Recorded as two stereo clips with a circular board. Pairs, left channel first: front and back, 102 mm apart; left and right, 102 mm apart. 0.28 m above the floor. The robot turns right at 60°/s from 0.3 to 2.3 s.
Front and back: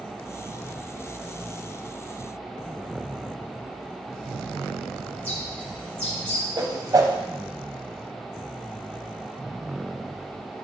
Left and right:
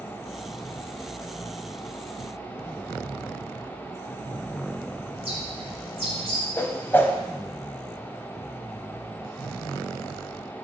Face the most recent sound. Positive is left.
turn(degrees=150)